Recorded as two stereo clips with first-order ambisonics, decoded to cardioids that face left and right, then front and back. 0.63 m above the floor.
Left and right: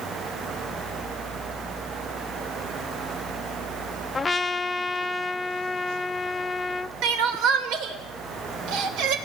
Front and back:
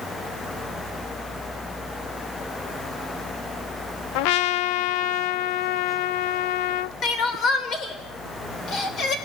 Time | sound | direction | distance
4.2 | a trumpet | 10° left | 0.6 m
7.0 | crying | 60° right | 2.5 m